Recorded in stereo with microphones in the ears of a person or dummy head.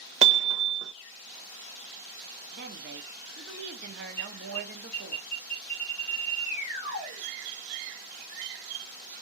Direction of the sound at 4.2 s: 55° left (ahead or behind).